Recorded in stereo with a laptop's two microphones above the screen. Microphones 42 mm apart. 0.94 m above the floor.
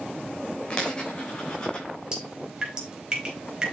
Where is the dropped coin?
20° left (ahead or behind), 3.5 m.